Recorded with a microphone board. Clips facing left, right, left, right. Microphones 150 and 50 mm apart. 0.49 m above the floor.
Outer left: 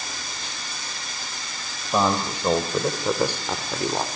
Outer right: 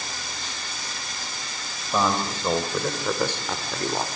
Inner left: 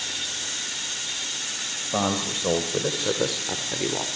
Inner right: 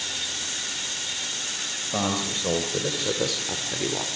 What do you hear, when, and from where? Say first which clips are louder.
1.9 s a man speaking: outer left 2 dB, inner left 2 dB; 15° left (ahead or behind), 3 m; by 4.1 s 10° left (ahead or behind), 1.5 m